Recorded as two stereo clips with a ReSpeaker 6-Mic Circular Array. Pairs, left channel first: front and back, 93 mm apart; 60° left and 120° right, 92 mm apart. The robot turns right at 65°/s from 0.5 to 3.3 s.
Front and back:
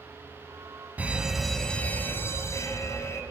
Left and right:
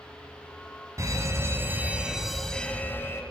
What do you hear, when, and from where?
1.0 s a fire alarm: 120° right, 3 m; by 3.2 s 25° left, 3 m